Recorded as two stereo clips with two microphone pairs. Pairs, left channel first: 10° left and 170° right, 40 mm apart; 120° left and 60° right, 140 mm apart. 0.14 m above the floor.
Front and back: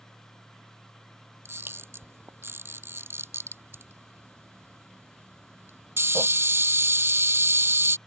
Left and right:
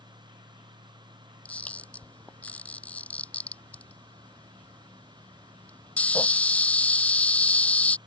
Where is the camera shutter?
160° right.